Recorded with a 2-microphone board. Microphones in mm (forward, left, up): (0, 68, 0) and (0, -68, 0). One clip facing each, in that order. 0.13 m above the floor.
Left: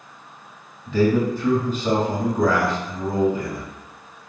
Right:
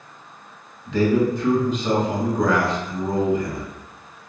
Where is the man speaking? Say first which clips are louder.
Even; 5° left (ahead or behind), 1.8 m.